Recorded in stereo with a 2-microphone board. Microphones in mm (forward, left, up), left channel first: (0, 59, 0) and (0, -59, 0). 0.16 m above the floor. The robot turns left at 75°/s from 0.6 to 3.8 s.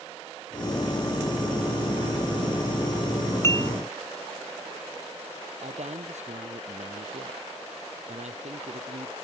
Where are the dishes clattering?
25° left (ahead or behind); by 3.7 s 30° left (ahead or behind).